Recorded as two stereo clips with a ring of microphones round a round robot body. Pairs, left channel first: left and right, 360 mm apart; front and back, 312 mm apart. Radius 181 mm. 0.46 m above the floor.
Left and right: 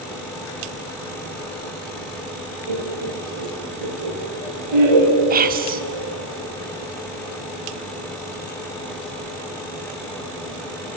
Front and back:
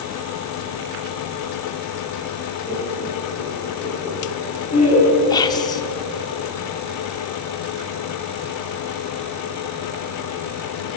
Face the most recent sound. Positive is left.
turn(degrees=-60)